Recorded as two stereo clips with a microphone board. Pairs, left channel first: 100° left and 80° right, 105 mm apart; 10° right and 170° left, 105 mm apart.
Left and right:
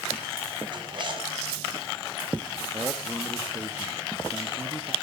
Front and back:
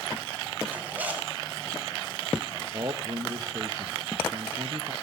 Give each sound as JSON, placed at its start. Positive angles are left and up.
{"t": 0.7, "sound": "a zipper", "azimuth_deg": -115, "distance_m": 2.0}
{"t": 2.7, "sound": "a man speaking", "azimuth_deg": -140, "distance_m": 1.0}